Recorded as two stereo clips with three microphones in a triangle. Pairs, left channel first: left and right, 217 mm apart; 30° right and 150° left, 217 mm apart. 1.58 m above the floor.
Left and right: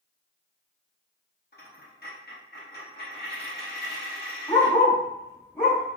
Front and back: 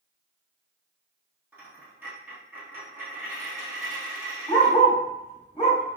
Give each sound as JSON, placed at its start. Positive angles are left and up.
{"t": 1.5, "sound": "a dropped coin", "azimuth_deg": 70, "distance_m": 1.4}
{"t": 4.5, "sound": "a dog barking", "azimuth_deg": 30, "distance_m": 1.6}